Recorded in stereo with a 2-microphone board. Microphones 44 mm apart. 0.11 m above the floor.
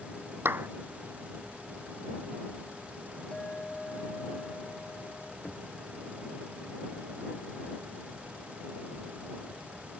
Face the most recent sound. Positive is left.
turn(degrees=35)  # may be behind; listen again after turning